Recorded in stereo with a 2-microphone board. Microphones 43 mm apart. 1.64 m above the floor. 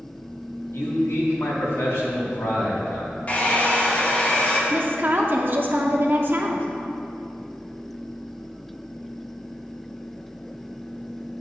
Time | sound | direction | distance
0.7 | a man speaking | 75° left (ahead or behind) | 2 m
3.3 | a hair dryer | 30° left (ahead or behind) | 1.2 m
4.7 | a woman speaking | 50° right (ahead or behind) | 0.9 m